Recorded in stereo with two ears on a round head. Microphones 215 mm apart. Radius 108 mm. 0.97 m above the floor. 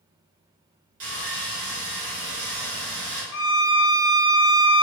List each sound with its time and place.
1.0 s sawing: 65° right (ahead or behind), 1.3 m
3.3 s a violin: 65° left (ahead or behind), 0.5 m